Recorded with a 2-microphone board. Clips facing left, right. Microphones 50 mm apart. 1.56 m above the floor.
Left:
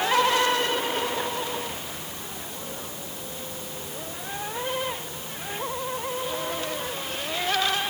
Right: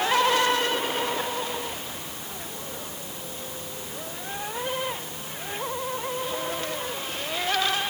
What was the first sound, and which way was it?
Only background noise.